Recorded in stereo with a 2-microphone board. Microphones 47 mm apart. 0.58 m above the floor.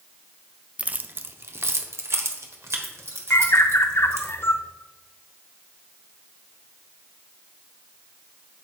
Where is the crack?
No crack in this recording.